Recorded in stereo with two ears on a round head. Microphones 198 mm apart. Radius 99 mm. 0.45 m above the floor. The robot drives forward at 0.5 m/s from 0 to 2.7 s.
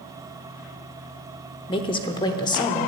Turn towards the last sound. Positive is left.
turn(degrees=20)  # may be behind; listen again after turning